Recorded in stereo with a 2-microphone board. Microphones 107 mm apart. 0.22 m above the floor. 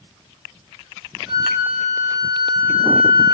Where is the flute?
10° right (ahead or behind), 1.1 m.